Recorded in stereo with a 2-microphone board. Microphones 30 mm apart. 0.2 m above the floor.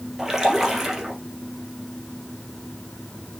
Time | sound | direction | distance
0.2 | a splash | 15° right (ahead or behind) | 2 m